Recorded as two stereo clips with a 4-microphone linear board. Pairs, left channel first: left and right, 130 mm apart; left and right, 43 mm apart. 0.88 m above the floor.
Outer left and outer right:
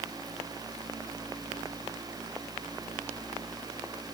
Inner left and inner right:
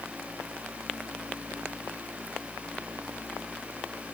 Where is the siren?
I don't hear a siren.